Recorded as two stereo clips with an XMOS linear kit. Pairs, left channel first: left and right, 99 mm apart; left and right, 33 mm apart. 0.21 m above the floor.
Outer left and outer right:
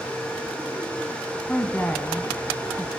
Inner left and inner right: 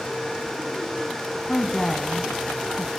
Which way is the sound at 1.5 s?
15° left (ahead or behind).